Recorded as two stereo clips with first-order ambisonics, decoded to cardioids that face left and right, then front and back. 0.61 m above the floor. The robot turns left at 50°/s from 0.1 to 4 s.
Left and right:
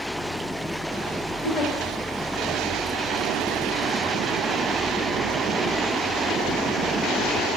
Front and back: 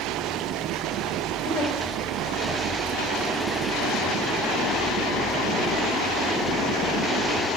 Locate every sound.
1.4 s a giggle: 70° left, 2.5 m; by 1.7 s 55° left, 2.5 m